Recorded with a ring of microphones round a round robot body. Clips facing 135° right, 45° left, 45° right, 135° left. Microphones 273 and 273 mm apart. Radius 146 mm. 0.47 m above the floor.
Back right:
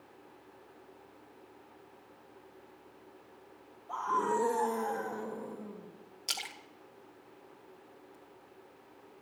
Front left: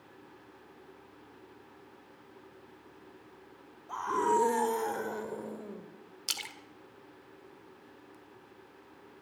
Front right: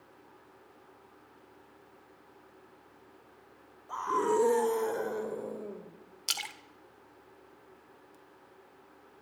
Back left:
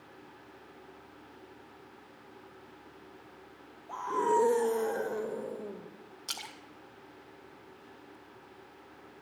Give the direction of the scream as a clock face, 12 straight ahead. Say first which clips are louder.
Front left 3 dB, front right 1 dB; 12 o'clock.